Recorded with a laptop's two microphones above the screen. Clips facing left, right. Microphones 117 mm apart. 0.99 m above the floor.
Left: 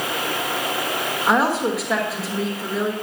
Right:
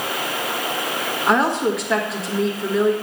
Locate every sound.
1.3 s a woman speaking: 5° left (ahead or behind), 1.2 m